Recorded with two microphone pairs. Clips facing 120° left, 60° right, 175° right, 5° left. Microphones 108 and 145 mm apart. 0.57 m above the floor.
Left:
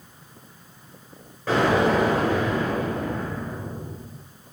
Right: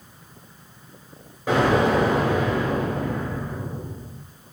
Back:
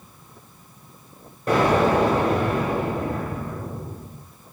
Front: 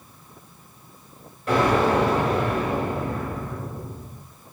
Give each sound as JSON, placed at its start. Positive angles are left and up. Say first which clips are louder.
{"t": 1.5, "sound": "an explosion", "louder": "right 1 dB, back 1 dB", "azimuth_deg": -135, "distance_m": 2.0}